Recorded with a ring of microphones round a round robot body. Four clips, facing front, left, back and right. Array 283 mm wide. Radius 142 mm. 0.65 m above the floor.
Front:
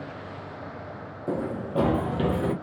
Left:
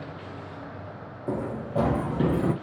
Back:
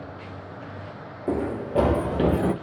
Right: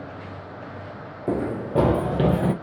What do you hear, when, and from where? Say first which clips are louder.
1.3 s running footsteps: right 5 dB, back 3 dB; 105° right, 0.7 m; by 2.5 s 110° right, 1.4 m